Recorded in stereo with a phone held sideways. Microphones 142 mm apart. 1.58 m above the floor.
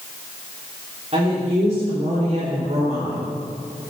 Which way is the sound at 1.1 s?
45° right (ahead or behind).